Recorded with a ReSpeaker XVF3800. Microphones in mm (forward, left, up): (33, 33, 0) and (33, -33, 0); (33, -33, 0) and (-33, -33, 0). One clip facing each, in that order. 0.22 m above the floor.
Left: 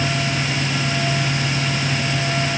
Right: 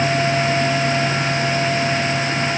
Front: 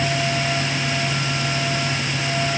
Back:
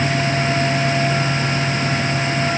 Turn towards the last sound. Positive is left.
No sound to turn to.